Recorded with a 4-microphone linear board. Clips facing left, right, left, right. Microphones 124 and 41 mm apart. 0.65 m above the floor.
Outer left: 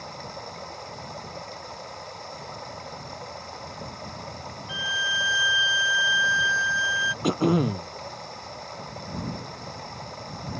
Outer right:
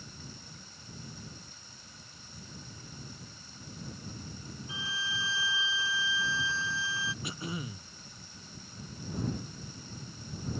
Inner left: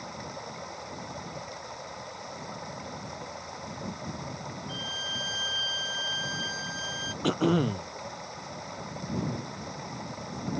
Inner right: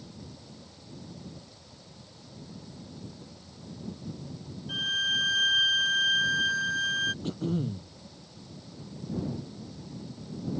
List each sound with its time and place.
0.0 s running water: 90° left
4.7 s a violin: 45° right (ahead or behind)
7.2 s throat clearing: 80° left